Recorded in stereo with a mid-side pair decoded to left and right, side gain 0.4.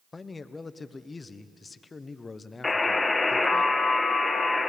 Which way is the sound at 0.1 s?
35° left.